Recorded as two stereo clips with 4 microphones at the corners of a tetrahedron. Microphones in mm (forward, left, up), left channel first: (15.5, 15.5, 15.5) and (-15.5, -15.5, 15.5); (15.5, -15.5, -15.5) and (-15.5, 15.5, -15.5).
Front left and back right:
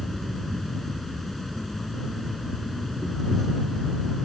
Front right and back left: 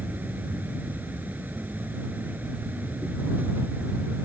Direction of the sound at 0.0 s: 130° left.